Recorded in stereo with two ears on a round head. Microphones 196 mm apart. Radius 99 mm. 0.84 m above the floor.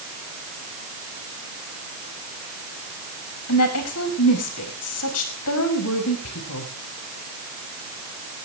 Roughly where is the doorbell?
I don't hear a doorbell.